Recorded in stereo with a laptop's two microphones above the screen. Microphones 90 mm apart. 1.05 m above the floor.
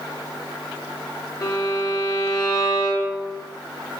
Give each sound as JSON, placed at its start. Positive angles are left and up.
{"t": 1.4, "sound": "a violin", "side_deg": 40, "distance_m": 0.7}